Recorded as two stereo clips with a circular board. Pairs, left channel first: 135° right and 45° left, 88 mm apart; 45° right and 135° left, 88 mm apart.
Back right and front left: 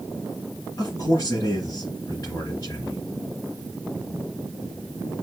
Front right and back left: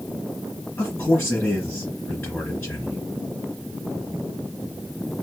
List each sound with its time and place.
0.8 s a man speaking: 105° right, 2.5 m